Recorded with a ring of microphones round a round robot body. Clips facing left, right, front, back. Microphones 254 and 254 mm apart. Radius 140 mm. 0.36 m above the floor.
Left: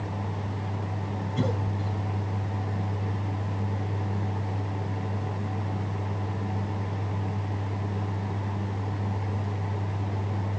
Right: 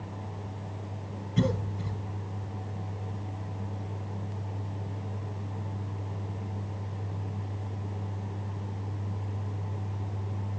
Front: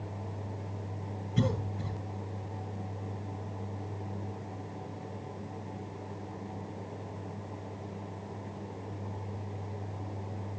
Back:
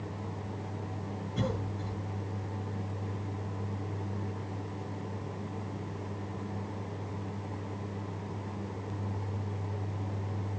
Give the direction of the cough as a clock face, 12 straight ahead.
1 o'clock.